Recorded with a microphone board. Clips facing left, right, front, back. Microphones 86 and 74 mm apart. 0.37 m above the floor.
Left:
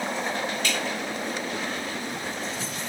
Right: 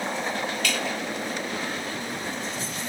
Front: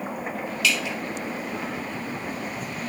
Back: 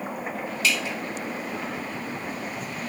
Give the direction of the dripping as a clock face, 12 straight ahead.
7 o'clock.